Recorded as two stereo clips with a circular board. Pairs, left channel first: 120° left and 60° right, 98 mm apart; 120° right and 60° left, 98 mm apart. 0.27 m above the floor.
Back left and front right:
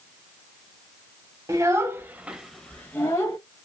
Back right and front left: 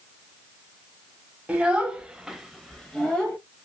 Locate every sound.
1.5 s a child speaking: 15° right, 0.9 m; by 3.4 s 165° left, 0.8 m